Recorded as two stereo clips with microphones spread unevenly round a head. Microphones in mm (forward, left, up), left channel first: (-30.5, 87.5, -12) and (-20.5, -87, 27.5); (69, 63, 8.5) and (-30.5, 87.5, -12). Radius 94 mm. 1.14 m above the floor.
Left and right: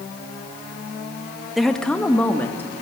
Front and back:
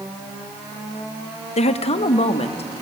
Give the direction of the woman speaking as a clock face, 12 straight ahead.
12 o'clock.